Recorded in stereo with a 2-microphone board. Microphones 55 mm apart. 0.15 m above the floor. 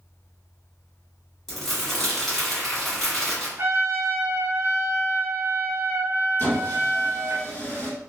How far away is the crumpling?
About 1.3 m.